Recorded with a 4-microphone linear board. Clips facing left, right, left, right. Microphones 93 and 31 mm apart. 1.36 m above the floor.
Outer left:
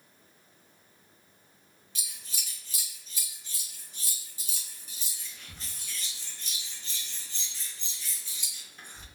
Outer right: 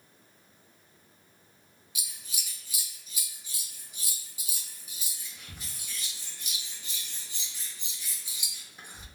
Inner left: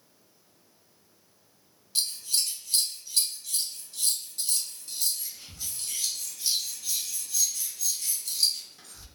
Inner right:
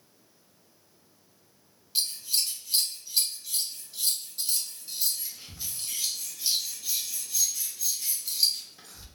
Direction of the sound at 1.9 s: 10° right (ahead or behind).